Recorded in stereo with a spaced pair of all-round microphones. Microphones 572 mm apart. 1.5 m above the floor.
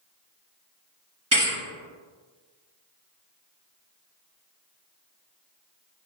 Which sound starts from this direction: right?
A thud, at 1.3 s.